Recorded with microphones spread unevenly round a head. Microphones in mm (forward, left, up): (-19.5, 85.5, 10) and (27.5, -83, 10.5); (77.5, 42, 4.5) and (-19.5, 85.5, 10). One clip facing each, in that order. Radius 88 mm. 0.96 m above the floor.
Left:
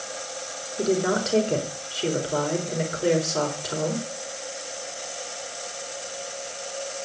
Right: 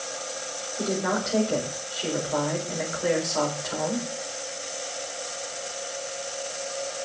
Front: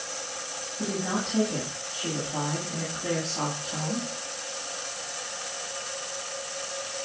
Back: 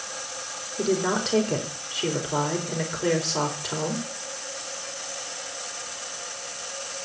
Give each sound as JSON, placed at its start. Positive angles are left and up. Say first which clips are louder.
{"t": 0.8, "sound": "a woman speaking", "louder": "left 4 dB, back 6 dB", "azimuth_deg": 160, "distance_m": 4.0}